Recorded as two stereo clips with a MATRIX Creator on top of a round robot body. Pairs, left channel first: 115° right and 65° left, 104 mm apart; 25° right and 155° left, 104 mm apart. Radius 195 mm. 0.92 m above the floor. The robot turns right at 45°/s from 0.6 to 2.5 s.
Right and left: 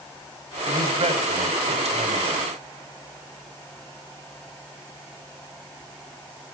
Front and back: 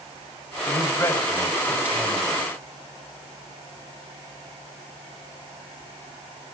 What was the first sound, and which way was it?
A man speaking, 25° left.